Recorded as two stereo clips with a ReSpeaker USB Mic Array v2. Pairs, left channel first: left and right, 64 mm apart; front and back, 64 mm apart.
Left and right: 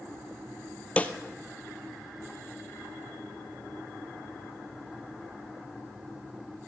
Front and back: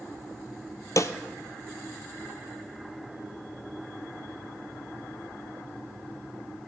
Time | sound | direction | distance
1.0 | a snare drum | 25° left | 0.7 m